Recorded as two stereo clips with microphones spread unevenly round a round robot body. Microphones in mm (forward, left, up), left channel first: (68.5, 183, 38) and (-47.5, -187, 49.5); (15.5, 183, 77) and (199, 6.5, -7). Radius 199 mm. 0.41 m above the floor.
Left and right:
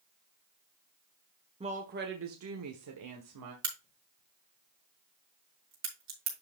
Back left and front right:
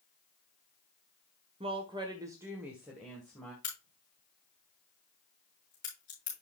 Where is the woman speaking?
40° right, 1.3 m; by 3.5 s 130° right, 1.9 m.